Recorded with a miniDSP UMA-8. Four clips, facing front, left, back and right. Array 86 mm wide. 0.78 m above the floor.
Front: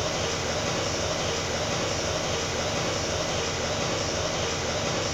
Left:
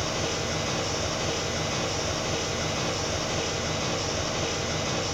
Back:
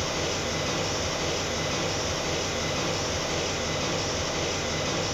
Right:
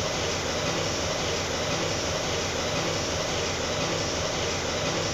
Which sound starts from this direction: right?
An engine running, at 0.0 s.